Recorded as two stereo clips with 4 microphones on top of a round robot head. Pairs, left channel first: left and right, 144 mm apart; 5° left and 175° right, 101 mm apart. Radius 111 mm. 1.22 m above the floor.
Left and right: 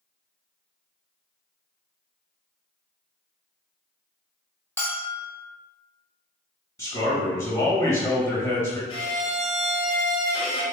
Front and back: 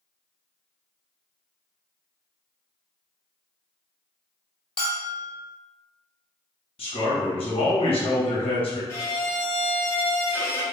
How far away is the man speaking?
About 1.5 m.